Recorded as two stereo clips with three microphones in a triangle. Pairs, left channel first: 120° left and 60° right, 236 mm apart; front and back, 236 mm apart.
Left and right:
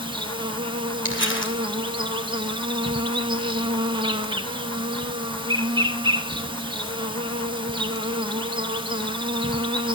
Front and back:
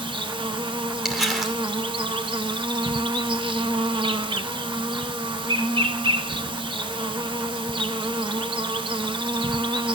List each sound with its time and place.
0.0 s an insect: 120° right, 0.8 m
1.1 s crumpling: 90° left, 2 m